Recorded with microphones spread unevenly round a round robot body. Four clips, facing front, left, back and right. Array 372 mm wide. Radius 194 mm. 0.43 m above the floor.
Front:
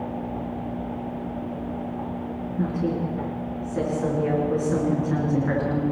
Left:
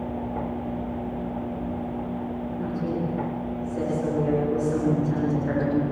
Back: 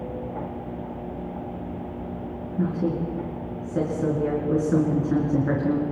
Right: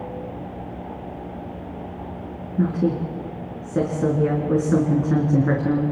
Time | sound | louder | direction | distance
2.6 | a woman speaking | right 8 dB, back 1 dB | 100° right | 5 m